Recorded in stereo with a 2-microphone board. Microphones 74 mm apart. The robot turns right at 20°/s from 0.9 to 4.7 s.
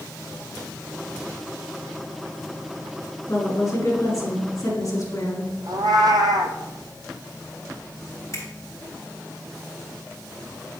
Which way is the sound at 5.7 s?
65° right (ahead or behind).